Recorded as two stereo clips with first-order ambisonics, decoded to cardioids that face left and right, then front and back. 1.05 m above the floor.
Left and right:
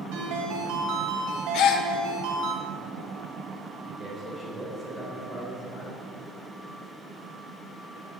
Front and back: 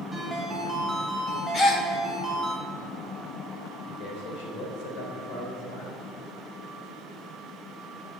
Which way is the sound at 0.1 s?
90° right.